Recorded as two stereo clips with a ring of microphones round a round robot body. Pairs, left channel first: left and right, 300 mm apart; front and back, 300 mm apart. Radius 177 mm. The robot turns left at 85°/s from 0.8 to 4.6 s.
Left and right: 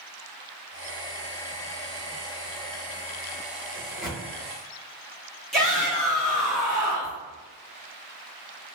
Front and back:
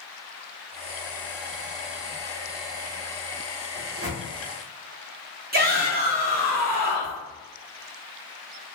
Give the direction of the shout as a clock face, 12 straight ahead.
6 o'clock.